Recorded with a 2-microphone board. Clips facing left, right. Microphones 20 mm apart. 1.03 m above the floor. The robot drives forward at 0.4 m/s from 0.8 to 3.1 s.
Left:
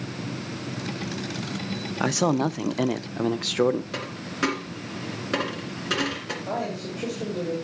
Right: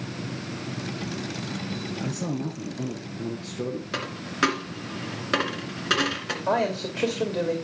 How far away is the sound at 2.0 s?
About 0.6 m.